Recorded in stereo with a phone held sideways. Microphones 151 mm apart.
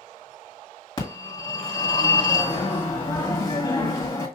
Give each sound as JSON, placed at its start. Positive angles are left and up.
{"t": 1.0, "sound": "a phone ringing", "side_deg": 30, "distance_m": 1.7}